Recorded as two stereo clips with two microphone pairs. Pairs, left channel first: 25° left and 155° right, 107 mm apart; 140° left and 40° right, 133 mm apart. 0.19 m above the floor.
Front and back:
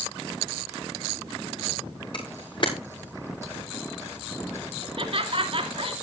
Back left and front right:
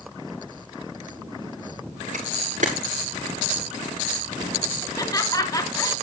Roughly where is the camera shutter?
Ahead.